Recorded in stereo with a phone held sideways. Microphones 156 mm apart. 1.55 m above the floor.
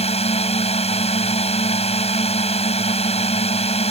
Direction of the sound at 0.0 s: 40° left (ahead or behind).